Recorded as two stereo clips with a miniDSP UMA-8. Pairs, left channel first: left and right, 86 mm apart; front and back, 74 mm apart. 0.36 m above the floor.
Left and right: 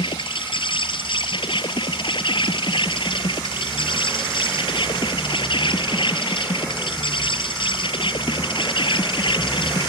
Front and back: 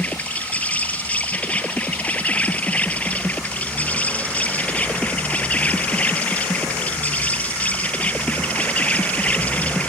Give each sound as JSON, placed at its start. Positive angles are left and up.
{"t": 0.0, "sound": "an insect", "azimuth_deg": 70}